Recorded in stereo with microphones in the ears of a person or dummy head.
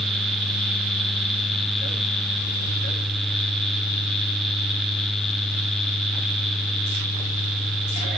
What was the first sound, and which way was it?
Only background noise.